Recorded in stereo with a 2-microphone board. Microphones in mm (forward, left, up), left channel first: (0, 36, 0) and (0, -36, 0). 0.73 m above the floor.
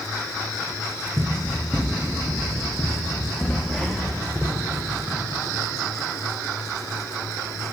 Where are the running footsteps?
30° right (ahead or behind), 2.5 m; by 5.2 s centre (ahead or behind), 5 m.